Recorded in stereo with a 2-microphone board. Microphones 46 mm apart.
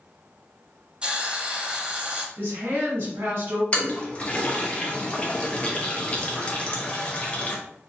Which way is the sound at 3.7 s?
30° left (ahead or behind).